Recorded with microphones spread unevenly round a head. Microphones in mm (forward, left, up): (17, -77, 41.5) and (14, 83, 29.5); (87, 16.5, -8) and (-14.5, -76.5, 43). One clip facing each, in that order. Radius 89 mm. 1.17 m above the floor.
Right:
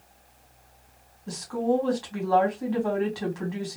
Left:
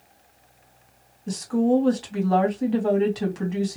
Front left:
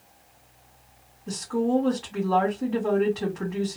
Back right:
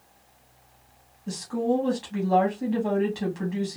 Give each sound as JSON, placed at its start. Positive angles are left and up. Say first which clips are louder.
{"t": 1.3, "sound": "a woman speaking", "louder": "left 5 dB, front left 1 dB", "azimuth_deg": 155, "distance_m": 2.5}